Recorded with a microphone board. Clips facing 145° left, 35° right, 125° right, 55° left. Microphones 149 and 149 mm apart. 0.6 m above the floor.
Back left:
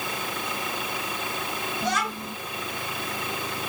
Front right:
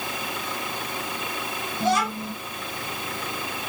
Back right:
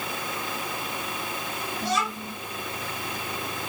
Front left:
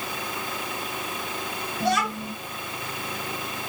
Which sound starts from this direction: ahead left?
A child speaking, at 1.8 s.